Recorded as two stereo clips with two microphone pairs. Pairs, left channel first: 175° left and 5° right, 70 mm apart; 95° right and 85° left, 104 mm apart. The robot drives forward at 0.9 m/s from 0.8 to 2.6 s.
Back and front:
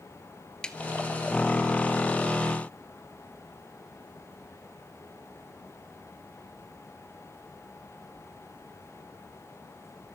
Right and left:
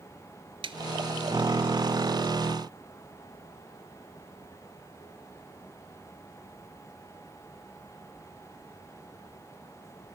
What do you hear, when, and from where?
0.6 s a snare drum: 100° left, 0.8 m